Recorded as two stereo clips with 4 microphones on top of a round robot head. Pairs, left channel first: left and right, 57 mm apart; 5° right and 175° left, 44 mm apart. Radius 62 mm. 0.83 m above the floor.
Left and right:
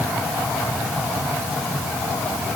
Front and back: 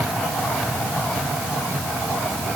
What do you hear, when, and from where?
Only background noise.